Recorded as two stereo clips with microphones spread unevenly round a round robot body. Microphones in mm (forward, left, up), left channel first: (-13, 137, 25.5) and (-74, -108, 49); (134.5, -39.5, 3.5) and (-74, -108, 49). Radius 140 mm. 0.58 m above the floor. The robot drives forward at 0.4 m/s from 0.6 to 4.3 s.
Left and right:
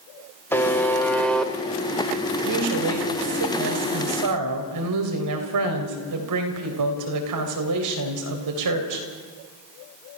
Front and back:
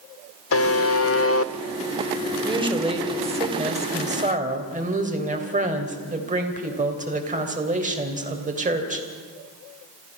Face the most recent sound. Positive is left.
turn(degrees=-100)